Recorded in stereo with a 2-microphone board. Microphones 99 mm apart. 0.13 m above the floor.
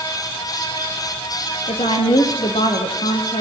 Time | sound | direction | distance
1.7 | a woman speaking | 70° left (ahead or behind) | 5 m